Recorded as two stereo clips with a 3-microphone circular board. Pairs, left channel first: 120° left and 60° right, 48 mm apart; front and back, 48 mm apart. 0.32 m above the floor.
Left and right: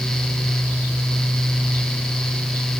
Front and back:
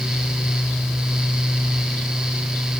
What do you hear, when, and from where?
Only background noise.